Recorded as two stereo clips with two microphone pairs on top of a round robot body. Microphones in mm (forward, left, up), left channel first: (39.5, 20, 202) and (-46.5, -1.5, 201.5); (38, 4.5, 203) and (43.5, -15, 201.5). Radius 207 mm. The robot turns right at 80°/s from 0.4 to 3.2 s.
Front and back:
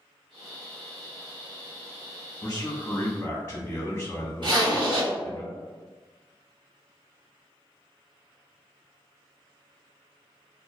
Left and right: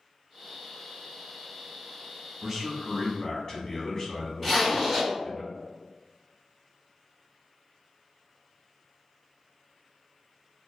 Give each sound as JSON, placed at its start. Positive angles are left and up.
{"t": 2.4, "sound": "a man speaking", "azimuth_deg": -5, "distance_m": 1.1}
{"t": 4.4, "sound": "a zipper", "azimuth_deg": -160, "distance_m": 1.9}